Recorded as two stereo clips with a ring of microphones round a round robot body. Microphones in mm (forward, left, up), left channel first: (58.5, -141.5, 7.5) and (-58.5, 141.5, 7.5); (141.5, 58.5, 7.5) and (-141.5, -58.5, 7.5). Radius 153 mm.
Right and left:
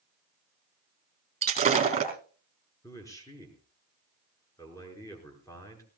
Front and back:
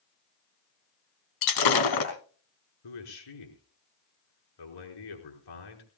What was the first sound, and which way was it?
Breaking glass, 40° left.